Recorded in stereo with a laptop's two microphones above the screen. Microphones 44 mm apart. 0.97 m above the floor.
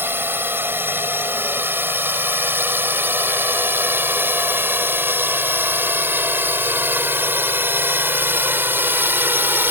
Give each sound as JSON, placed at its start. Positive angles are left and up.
{"t": 0.0, "sound": "a drone", "side_deg": -50}